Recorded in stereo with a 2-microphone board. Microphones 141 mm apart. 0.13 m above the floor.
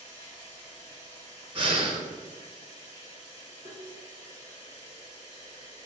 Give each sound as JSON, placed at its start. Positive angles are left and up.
{"t": 0.0, "sound": "running water", "side_deg": 20, "distance_m": 1.7}
{"t": 1.6, "sound": "breathing", "side_deg": -40, "distance_m": 0.5}
{"t": 3.6, "sound": "tapping", "side_deg": 5, "distance_m": 1.3}